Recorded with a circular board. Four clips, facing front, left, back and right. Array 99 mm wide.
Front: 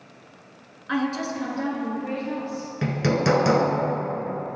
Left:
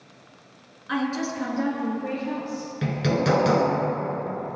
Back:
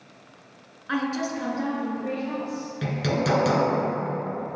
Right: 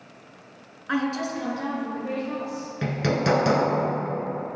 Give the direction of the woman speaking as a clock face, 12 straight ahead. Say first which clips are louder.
Even, front 1 dB; 3 o'clock.